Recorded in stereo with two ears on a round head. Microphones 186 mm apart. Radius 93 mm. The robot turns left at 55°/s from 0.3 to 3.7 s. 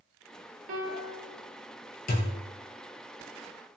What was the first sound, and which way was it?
A piano, 40° right.